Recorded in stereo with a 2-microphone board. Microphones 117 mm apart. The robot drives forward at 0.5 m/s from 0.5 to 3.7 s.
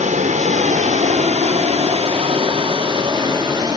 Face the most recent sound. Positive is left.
turn(degrees=-35)  # may be behind; listen again after turning